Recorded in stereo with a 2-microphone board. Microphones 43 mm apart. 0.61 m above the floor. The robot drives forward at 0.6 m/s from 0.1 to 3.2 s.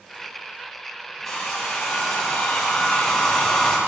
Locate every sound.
1.2 s a hair dryer: 5° left (ahead or behind), 3.5 m